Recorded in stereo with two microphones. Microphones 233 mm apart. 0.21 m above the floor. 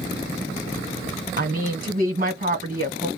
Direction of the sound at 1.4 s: 40° right (ahead or behind).